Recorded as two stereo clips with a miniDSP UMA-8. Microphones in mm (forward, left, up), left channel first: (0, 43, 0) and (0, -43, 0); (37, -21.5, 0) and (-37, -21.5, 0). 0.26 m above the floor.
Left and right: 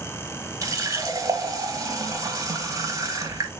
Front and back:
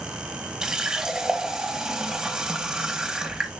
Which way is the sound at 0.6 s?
105° right.